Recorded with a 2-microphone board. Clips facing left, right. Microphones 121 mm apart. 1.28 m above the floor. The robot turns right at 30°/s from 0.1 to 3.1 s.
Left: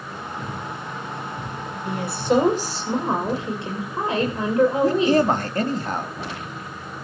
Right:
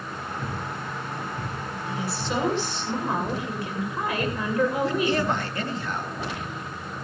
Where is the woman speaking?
115° left, 6.5 m; by 5.2 s 150° left, 6.5 m.